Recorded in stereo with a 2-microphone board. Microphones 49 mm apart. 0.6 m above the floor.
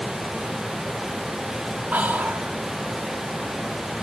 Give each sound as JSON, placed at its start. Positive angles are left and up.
{"t": 1.9, "sound": "whispering", "side_deg": -40, "distance_m": 1.6}